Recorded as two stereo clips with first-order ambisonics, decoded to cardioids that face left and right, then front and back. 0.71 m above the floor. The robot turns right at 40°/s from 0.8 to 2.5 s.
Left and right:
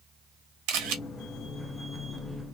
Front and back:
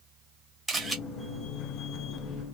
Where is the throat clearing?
No throat clearing in this recording.